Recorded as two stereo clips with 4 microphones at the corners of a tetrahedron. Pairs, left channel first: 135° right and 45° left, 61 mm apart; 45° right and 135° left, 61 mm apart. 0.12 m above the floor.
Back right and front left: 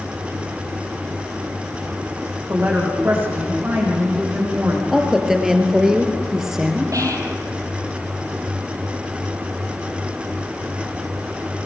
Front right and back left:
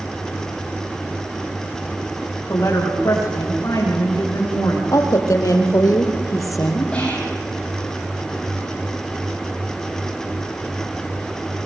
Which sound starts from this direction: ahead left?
Whispering, at 6.9 s.